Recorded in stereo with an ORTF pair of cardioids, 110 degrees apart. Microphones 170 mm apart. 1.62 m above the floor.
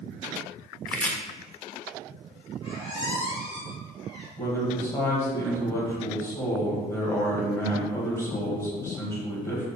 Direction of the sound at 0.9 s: 10° left.